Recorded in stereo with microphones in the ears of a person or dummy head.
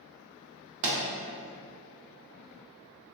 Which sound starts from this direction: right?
A pop, at 0.8 s.